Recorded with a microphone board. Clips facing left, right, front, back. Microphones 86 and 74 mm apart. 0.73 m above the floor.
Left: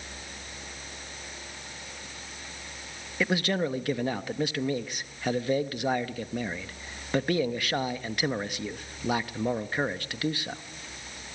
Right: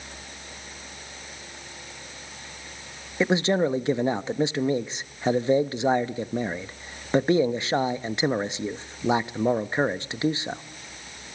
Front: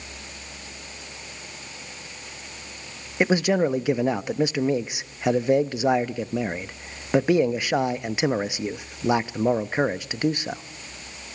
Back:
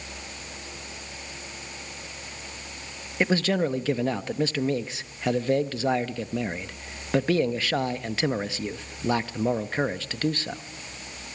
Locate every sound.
3.2 s a man speaking: 55° right, 0.6 m